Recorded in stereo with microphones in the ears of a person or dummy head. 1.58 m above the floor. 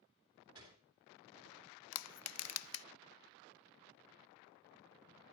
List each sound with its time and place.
0.6 s a gunshot: 20° right (ahead or behind), 3 m
1.9 s crushing: 80° left, 0.5 m